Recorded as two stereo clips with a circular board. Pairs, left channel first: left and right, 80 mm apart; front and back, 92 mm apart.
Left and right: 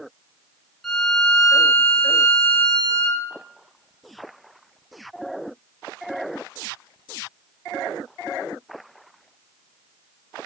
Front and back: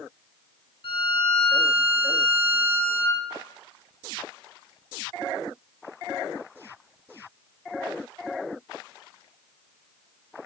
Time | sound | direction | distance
0.8 | a violin | 5° left | 0.6 m